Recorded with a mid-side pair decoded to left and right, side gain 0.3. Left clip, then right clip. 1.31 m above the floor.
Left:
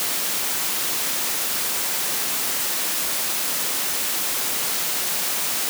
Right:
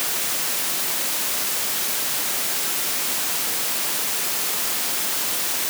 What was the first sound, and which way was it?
Only background noise.